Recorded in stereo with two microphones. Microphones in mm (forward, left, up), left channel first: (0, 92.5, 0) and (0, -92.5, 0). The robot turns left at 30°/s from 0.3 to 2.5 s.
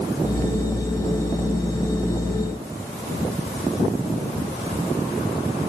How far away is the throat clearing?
No throat clearing in this recording.